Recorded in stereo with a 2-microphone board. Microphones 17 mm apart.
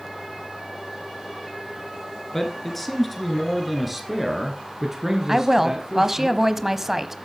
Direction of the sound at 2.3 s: 20° left (ahead or behind).